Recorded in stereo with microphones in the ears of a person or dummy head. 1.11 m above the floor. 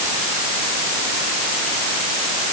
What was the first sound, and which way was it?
Only background noise.